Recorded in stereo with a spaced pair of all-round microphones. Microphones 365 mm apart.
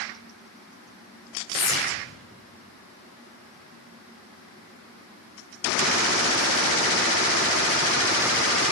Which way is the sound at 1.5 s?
15° left (ahead or behind).